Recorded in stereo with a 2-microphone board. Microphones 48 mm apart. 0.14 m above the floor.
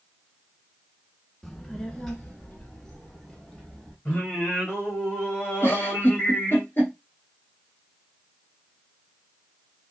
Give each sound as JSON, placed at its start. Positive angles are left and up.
{"t": 1.4, "sound": "a child speaking", "side_deg": 5, "distance_m": 0.7}
{"t": 4.0, "sound": "singing", "side_deg": 35, "distance_m": 3.5}
{"t": 5.6, "sound": "a giggle", "side_deg": 45, "distance_m": 3.0}